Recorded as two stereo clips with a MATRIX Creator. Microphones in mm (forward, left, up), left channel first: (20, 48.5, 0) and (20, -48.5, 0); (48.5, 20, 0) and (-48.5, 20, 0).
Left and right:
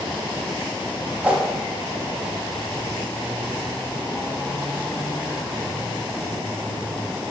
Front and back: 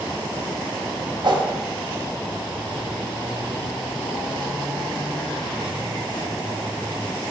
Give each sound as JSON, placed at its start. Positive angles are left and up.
{"t": 1.2, "sound": "a whoosh", "azimuth_deg": -160, "distance_m": 0.6}